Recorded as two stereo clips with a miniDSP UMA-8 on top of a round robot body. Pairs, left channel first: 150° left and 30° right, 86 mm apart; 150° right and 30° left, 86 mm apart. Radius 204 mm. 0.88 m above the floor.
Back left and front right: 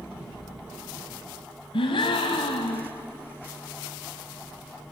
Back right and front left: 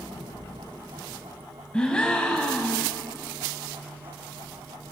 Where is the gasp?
130° left, 1.2 m.